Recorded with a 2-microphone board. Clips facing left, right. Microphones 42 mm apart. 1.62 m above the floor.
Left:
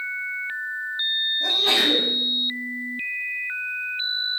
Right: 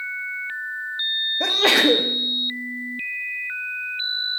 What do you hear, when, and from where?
1.4 s a sneeze: 80° right, 1.9 m